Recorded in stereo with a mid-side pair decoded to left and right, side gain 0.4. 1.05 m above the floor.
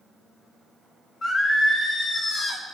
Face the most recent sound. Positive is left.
turn(degrees=45)